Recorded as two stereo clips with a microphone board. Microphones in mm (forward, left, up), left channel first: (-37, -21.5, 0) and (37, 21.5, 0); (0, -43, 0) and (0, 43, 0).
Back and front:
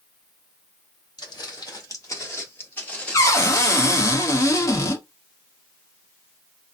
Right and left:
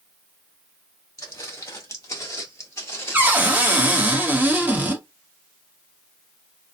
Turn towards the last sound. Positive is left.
turn(degrees=155)